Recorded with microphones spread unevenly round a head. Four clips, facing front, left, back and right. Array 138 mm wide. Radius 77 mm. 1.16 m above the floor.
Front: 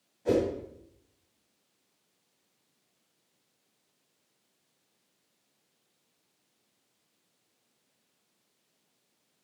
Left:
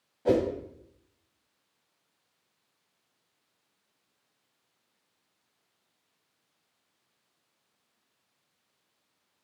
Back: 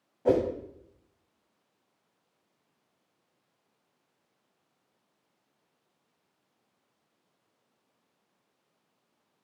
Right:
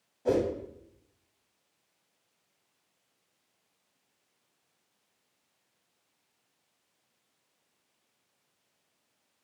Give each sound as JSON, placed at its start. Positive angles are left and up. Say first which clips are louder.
{"t": 0.2, "sound": "a whoosh", "louder": "left 2 dB, back 2 dB", "azimuth_deg": 175, "distance_m": 1.8}